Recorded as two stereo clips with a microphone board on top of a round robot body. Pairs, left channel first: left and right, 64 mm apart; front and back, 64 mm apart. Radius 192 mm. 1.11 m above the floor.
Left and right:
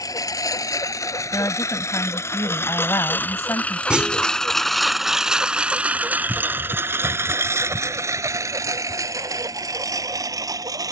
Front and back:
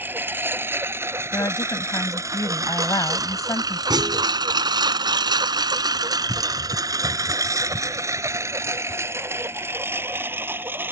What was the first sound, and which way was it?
A lawn mower, 120° left.